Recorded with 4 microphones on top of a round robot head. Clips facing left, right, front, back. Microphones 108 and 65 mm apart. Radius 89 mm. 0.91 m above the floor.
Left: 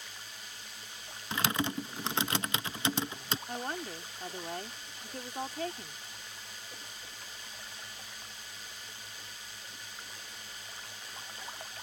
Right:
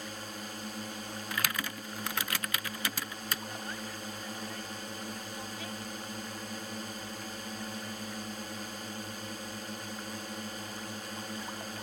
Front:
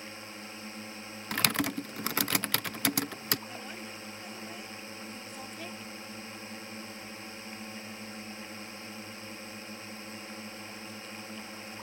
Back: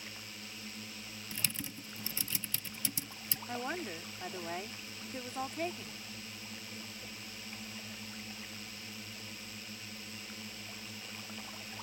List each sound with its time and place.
0.0 s a drone: 55° right
1.3 s typing on a keyboard: 25° left
3.5 s a woman speaking: 135° left